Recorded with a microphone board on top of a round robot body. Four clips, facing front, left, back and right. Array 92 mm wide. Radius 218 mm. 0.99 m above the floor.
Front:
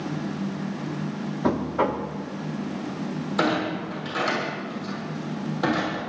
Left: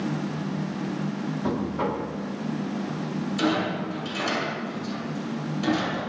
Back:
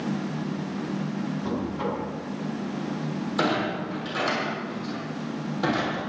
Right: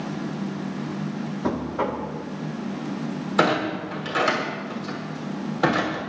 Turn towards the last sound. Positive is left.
turn(degrees=-85)